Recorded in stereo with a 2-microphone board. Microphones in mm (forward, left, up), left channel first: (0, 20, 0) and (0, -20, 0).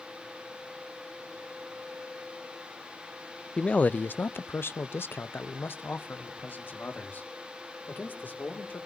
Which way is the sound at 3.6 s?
25° left (ahead or behind).